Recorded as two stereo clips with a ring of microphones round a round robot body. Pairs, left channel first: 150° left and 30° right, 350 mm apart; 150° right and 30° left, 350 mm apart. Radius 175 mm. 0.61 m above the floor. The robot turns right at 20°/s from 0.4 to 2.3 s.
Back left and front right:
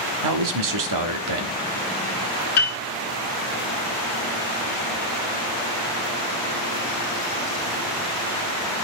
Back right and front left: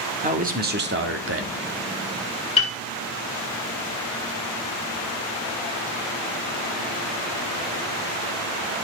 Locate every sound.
0.2 s a man speaking: 30° right, 1.5 m; by 1.6 s 10° right, 1.5 m
2.6 s a piano: 140° left, 3 m